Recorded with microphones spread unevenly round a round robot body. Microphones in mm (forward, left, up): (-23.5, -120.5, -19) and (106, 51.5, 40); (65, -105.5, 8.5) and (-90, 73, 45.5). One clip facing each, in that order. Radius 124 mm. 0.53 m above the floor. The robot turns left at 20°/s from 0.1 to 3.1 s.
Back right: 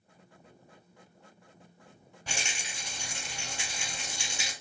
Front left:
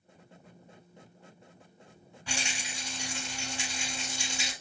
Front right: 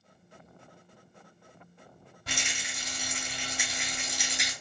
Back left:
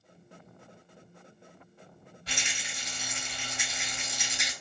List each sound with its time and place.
2.3 s a rattle: 85° right, 2.5 m; by 4.5 s 105° right, 2.5 m